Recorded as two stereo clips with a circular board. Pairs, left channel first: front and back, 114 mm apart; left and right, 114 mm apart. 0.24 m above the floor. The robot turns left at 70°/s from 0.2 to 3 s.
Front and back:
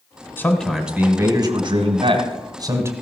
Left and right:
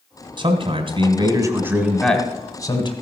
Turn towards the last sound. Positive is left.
turn(degrees=110)